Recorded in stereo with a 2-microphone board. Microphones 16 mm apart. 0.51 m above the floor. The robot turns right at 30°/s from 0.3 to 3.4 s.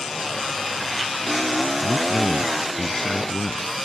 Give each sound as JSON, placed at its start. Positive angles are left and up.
{"t": 1.8, "sound": "a man speaking", "azimuth_deg": -10}